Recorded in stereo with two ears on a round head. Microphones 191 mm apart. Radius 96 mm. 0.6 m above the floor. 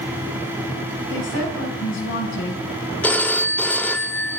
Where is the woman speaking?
65° left (ahead or behind), 5.5 m.